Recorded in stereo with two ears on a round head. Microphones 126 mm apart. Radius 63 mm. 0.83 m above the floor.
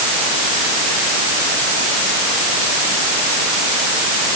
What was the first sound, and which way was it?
Only background noise.